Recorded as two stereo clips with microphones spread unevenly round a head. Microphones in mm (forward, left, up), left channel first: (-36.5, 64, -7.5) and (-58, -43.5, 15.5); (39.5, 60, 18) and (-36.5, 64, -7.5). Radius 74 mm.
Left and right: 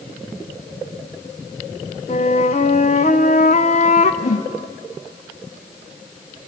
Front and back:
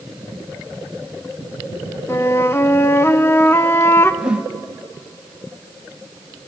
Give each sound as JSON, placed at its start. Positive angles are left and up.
{"t": 2.1, "sound": "a flute", "azimuth_deg": 30, "distance_m": 0.9}
{"t": 4.2, "sound": "a whoosh", "azimuth_deg": 85, "distance_m": 1.1}